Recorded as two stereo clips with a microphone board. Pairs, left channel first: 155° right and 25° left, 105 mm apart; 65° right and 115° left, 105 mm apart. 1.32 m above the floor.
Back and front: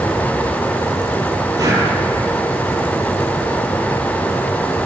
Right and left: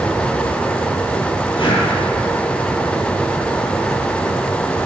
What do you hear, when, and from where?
1.6 s breathing: 35° right, 5.5 m